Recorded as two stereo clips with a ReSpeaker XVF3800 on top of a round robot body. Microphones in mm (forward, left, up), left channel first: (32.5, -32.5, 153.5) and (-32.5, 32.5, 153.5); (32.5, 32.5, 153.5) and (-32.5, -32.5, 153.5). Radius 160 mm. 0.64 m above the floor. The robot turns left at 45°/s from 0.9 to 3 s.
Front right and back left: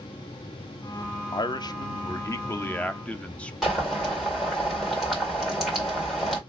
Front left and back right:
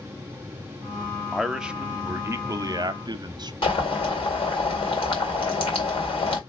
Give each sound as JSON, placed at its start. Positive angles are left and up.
{"t": 1.3, "sound": "a man speaking", "azimuth_deg": -40, "distance_m": 0.8}
{"t": 3.6, "sound": "boiling", "azimuth_deg": 50, "distance_m": 2.5}